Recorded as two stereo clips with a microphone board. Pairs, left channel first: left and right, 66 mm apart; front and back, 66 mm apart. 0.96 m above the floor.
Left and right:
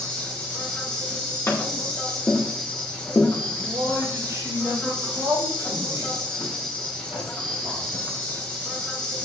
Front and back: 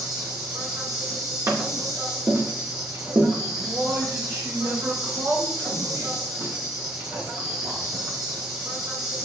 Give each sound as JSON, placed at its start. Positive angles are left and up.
{"t": 0.0, "sound": "an insect", "azimuth_deg": 160, "distance_m": 3.0}
{"t": 1.5, "sound": "tapping", "azimuth_deg": 140, "distance_m": 2.0}
{"t": 3.5, "sound": "a man speaking", "azimuth_deg": -135, "distance_m": 5.0}